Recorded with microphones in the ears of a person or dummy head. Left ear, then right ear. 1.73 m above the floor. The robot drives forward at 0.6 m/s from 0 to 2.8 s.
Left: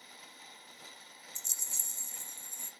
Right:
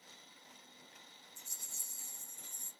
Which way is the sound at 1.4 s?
55° left (ahead or behind).